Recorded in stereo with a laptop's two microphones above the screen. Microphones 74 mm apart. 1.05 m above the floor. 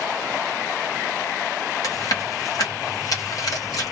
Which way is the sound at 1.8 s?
55° left (ahead or behind).